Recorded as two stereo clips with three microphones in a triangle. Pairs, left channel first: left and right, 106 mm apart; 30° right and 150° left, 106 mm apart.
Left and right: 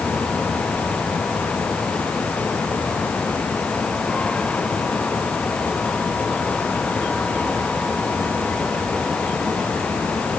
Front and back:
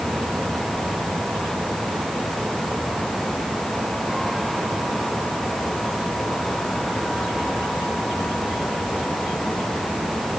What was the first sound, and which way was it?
Only background noise.